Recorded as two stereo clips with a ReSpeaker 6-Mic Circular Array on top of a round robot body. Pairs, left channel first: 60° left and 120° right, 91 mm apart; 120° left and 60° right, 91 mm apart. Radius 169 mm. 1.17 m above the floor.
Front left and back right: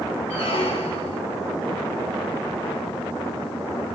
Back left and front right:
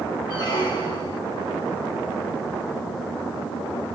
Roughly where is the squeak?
Left.